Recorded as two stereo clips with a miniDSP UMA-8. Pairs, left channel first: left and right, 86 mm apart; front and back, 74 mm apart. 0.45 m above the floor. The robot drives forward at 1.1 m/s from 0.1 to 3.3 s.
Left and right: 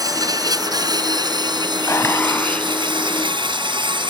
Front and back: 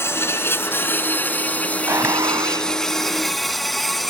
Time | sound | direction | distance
0.0 | an insect | 50° right | ?
1.9 | a gunshot | 135° left | ?